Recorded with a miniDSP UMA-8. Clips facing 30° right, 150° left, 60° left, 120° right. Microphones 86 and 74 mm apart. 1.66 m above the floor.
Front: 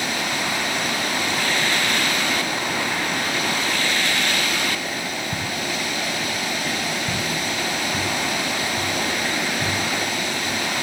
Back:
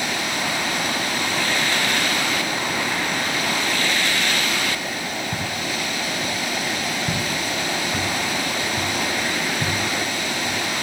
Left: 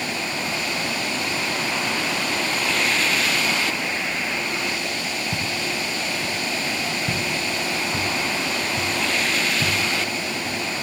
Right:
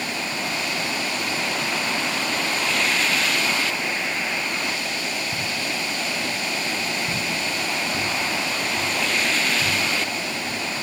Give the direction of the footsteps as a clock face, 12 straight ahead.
10 o'clock.